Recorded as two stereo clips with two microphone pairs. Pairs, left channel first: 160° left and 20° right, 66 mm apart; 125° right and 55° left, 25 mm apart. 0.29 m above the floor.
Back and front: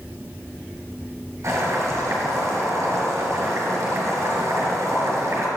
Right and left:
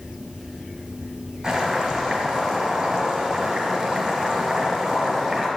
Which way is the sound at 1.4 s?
Straight ahead.